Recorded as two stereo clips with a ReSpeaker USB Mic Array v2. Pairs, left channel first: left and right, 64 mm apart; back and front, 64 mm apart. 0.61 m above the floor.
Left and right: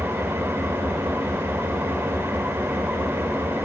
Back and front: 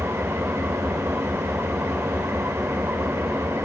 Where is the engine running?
45° right, 1.8 m.